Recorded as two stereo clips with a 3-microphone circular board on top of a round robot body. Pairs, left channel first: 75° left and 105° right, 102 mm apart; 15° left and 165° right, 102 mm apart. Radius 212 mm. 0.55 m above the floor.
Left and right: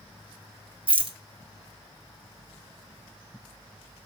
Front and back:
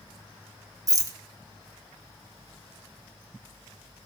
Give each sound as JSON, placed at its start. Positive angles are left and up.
{"t": 0.9, "sound": "a rattle", "azimuth_deg": -115, "distance_m": 1.4}